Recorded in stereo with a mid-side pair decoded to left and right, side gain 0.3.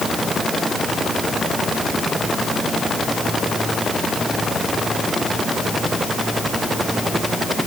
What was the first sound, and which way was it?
Only background noise.